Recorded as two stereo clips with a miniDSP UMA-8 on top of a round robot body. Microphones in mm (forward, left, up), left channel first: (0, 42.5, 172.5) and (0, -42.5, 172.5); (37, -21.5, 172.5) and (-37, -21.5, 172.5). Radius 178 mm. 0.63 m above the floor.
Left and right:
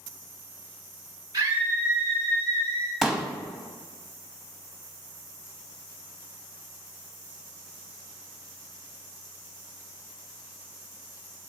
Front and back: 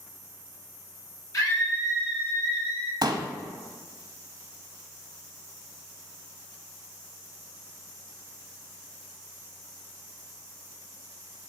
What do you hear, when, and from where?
1.3 s a scream: 45° right, 2.0 m; by 2.9 s 5° right, 3.5 m
3.0 s a pop: 175° right, 0.9 m